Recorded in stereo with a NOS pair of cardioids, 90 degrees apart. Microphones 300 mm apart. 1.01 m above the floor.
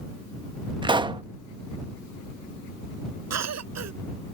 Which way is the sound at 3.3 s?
60° right.